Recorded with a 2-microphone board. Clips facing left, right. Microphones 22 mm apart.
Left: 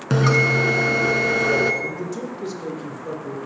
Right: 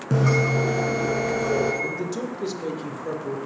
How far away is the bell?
About 1.2 m.